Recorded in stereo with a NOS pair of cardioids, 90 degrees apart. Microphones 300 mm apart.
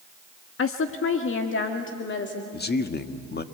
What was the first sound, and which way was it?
A woman speaking, 50° left.